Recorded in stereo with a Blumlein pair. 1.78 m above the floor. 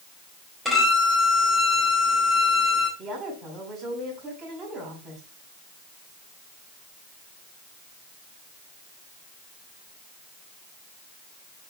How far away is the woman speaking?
About 5.5 m.